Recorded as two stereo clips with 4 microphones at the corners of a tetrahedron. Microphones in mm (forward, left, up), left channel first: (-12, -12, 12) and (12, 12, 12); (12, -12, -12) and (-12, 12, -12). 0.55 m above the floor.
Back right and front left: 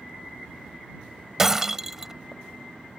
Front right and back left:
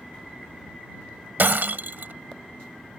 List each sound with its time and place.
1.4 s breaking glass: 120° left